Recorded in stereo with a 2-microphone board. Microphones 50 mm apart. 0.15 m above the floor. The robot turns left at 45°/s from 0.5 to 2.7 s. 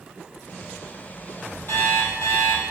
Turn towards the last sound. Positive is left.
turn(degrees=90)